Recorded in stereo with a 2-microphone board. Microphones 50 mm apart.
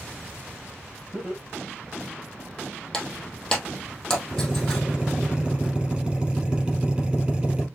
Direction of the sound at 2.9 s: 15° left (ahead or behind).